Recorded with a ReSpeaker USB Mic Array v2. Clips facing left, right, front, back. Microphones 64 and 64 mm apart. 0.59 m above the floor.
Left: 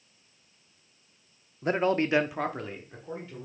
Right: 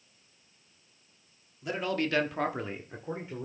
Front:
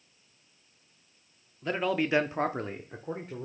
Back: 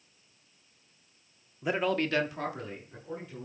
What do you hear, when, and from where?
1.6 s a man speaking: 110° left, 1.0 m; by 3.5 s 30° right, 1.8 m